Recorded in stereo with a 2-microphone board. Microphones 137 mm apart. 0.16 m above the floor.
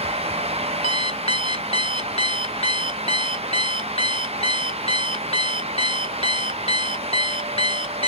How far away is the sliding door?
No sliding door in this recording.